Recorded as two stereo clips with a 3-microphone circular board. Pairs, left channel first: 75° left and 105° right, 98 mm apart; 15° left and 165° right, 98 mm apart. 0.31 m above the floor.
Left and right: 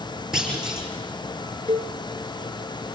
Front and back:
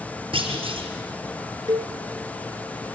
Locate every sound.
0.3 s a clunk: 170° left, 4.5 m
1.7 s a cowbell: 135° right, 1.0 m